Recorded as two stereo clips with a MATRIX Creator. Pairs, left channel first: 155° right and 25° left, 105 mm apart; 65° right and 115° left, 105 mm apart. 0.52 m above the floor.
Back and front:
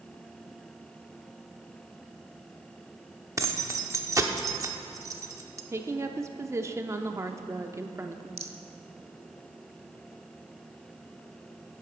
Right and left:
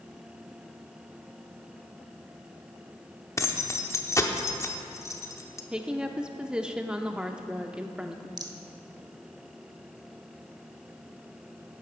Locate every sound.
3.4 s keys jangling: 20° right, 0.8 m
5.7 s a woman speaking: 40° left, 0.7 m
8.4 s a rattle: 75° left, 0.8 m